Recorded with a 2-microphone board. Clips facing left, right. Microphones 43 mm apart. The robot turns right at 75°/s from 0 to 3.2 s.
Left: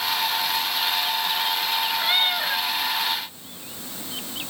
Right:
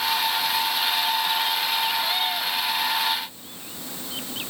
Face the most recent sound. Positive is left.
turn(degrees=150)